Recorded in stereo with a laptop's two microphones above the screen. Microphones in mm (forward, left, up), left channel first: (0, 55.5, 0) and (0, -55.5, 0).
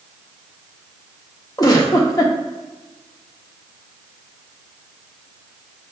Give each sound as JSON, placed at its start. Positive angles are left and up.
{"t": 1.6, "sound": "a giggle", "side_deg": 35, "distance_m": 0.9}